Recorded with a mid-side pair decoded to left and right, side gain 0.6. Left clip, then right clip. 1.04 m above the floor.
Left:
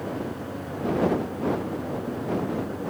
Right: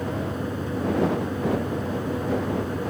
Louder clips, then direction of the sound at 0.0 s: Right 3 dB; 40° right.